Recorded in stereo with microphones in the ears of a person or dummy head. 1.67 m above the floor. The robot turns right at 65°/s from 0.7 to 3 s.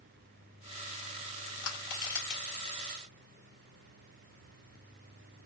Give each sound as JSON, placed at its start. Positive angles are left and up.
{"t": 1.6, "sound": "crushing", "side_deg": 55, "distance_m": 2.0}